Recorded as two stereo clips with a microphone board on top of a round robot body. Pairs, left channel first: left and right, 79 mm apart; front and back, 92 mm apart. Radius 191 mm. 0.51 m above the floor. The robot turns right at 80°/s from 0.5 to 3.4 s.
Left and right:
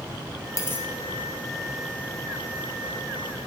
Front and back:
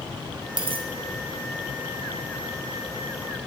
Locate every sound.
0.6 s a dropped coin: 140° left, 0.6 m; by 0.9 s 165° left, 0.6 m